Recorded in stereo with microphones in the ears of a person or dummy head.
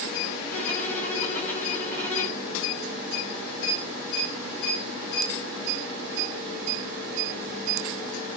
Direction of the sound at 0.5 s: 10° left (ahead or behind).